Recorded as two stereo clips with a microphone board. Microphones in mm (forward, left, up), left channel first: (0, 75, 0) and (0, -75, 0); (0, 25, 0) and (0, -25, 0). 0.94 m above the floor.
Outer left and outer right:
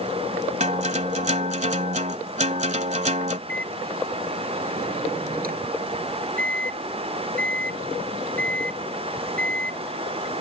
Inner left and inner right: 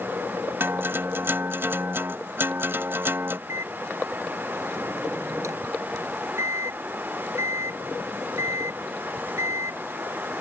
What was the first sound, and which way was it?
A guitar, 50° right (ahead or behind).